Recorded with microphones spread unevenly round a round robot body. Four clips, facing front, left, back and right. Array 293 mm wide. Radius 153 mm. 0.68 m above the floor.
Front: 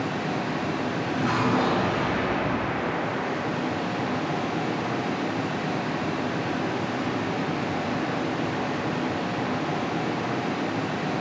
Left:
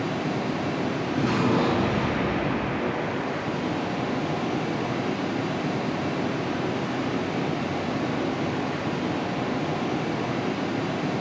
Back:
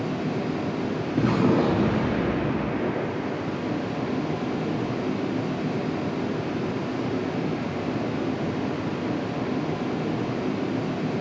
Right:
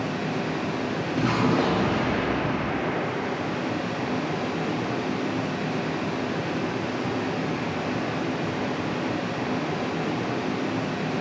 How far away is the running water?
About 0.7 m.